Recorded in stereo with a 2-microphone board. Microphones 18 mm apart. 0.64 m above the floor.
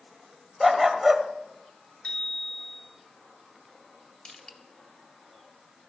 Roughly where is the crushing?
Left.